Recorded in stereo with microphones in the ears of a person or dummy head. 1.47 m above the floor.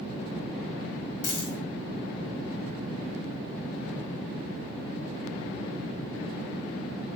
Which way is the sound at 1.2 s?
65° left (ahead or behind).